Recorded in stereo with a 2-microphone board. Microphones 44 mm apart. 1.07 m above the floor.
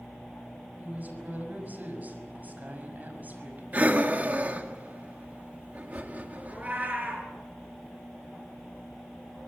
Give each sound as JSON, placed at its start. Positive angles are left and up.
{"t": 0.8, "sound": "a woman speaking", "side_deg": -40, "distance_m": 6.0}
{"t": 3.7, "sound": "breathing", "side_deg": -35, "distance_m": 2.0}
{"t": 6.5, "sound": "a cat meowing", "side_deg": -30, "distance_m": 6.5}